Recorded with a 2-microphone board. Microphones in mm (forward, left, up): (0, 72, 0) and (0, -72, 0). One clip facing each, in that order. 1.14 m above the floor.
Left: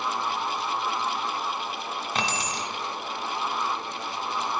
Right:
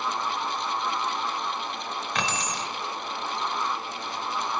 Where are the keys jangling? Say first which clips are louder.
Even; 25° left (ahead or behind), 1.4 m.